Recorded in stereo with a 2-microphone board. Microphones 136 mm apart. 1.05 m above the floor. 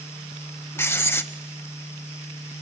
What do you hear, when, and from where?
0.8 s writing: 20° left (ahead or behind), 0.9 m